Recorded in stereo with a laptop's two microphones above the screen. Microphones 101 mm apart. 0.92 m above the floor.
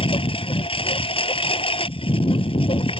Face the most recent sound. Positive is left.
turn(degrees=65)  # may be behind; listen again after turning